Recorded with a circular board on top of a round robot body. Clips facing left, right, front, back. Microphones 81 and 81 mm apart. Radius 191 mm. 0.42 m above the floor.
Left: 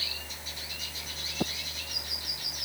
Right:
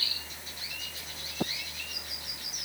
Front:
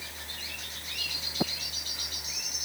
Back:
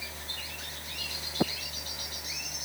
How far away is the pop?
No pop in this recording.